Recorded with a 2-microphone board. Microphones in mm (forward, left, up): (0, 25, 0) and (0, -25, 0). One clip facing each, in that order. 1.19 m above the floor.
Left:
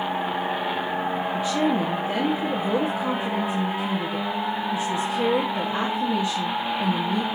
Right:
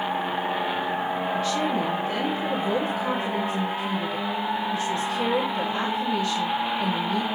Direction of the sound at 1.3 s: 15° left (ahead or behind).